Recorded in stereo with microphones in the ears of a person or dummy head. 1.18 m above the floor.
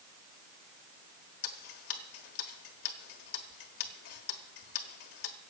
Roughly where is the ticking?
Left.